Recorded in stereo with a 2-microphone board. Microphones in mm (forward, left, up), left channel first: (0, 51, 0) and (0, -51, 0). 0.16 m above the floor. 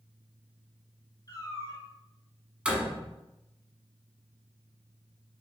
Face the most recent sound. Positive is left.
turn(degrees=-10)  # may be behind; listen again after turning